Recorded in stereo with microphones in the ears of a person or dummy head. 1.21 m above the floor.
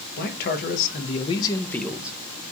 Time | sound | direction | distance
0.2 | a man speaking | 60° left (ahead or behind) | 1.1 m